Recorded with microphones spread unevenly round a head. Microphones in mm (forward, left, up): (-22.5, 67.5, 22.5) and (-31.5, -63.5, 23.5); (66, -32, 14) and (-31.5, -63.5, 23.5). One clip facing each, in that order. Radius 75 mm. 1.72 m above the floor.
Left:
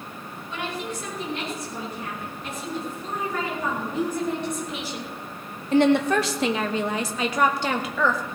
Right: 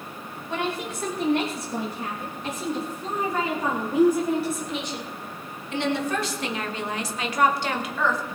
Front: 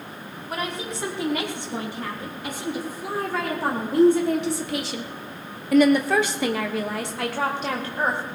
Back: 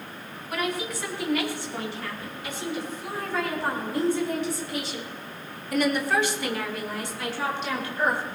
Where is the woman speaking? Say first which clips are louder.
Right 3 dB, back 1 dB; 40° right, 4.5 m; by 8.2 s 90° left, 2 m.